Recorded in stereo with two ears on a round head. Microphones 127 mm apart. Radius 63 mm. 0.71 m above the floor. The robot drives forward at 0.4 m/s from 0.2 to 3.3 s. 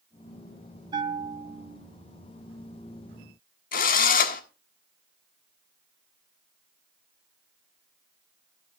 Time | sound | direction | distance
0.9 | a bell | 30° right (ahead or behind) | 1.5 m
3.7 | a drill | 65° left (ahead or behind) | 1.5 m